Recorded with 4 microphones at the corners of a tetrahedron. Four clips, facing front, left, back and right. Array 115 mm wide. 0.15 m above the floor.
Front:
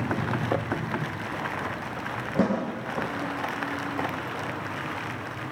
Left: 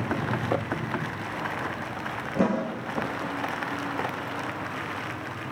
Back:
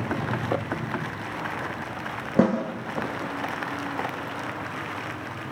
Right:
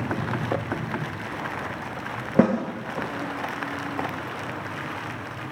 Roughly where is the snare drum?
Behind right.